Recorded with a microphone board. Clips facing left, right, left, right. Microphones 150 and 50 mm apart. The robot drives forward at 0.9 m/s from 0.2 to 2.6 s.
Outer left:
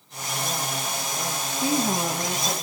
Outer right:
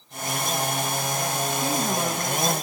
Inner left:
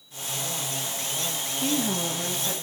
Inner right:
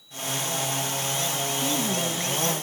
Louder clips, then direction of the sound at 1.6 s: Outer left 4 dB, inner left 3 dB; 15° left (ahead or behind).